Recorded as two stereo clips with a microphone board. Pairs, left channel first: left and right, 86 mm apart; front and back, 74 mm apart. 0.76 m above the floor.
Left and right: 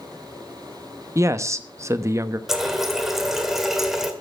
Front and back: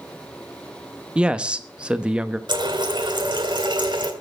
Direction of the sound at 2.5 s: 175° right.